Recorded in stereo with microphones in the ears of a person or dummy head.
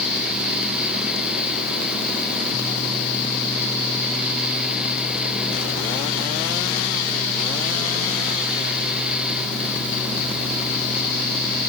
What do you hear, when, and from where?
Only background noise.